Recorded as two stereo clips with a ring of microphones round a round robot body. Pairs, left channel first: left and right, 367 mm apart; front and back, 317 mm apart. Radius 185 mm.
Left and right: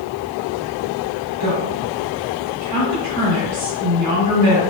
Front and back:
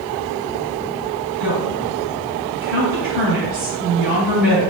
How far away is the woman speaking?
About 1.5 m.